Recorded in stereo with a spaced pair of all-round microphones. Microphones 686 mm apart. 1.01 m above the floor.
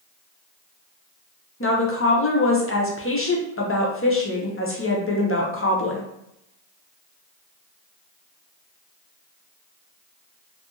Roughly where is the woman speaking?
Left.